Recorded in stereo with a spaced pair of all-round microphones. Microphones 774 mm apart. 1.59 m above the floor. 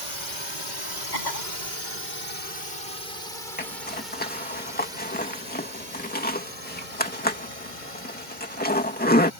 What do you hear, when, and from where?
0.0 s a drone: 60° right (ahead or behind); by 9.4 s 70° right (ahead or behind)
1.1 s a cough: 65° left (ahead or behind)
3.6 s a zipper: 10° left (ahead or behind)